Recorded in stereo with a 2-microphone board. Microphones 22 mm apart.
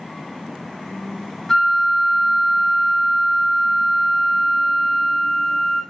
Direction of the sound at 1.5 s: 20° left (ahead or behind).